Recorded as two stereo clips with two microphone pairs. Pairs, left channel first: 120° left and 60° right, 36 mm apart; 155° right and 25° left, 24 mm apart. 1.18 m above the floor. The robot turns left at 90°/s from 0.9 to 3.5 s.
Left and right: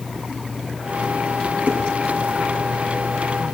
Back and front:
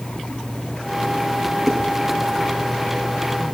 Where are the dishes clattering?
120° left, 8 m; by 1.8 s 110° left, 8 m.